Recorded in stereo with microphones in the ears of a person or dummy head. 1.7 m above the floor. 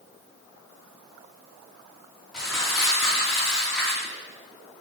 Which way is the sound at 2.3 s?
Centre (ahead or behind).